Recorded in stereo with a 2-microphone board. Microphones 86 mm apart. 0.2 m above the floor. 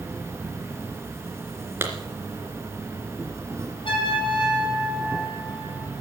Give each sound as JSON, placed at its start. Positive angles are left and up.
{"t": 0.0, "sound": "an insect", "side_deg": -30, "distance_m": 3.5}
{"t": 1.8, "sound": "a clap", "side_deg": -25, "distance_m": 3.0}
{"t": 3.9, "sound": "a trumpet", "side_deg": 75, "distance_m": 8.5}